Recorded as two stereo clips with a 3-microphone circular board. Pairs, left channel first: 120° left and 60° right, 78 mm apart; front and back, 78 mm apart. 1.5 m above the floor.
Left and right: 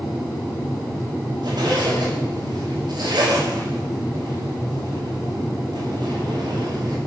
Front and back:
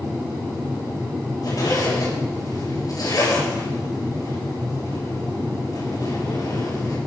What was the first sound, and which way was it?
A zipper, 40° right.